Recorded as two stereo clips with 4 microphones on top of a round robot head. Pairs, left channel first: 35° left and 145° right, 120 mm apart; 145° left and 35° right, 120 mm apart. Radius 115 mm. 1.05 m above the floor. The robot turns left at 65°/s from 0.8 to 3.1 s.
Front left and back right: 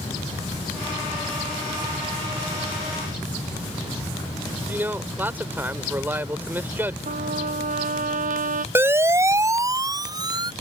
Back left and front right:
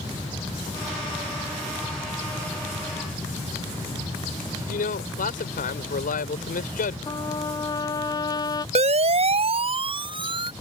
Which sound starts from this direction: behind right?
A trumpet, at 7.1 s.